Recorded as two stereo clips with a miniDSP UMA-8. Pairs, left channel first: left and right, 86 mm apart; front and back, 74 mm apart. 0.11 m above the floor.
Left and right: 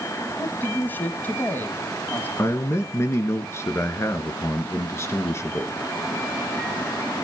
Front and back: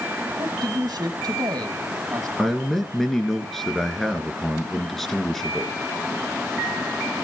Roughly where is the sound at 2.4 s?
Left.